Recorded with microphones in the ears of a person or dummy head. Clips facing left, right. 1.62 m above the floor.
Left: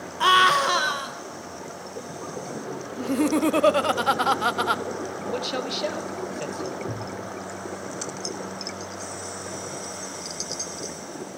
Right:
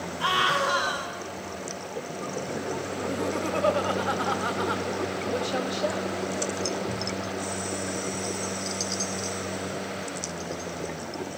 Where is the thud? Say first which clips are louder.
Right 1 dB; 65° left (ahead or behind), 5.5 m.